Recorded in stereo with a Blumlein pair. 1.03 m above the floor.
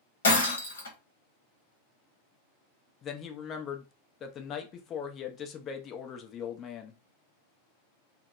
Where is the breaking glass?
70° left, 1.0 m.